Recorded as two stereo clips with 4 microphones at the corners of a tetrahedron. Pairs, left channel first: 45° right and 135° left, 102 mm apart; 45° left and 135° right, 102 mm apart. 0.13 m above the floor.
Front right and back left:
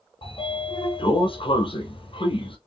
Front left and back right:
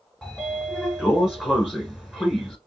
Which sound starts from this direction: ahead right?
A sliding door, at 0.2 s.